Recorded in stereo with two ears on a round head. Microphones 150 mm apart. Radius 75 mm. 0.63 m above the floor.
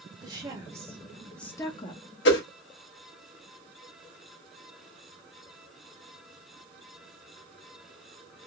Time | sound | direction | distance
0.2 | a woman speaking | 25° right (ahead or behind) | 1.4 m
2.2 | a whoosh | 75° left (ahead or behind) | 1.1 m